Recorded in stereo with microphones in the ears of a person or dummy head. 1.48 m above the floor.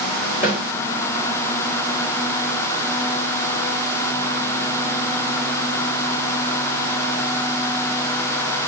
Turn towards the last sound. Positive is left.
turn(degrees=40)  # may be behind; listen again after turning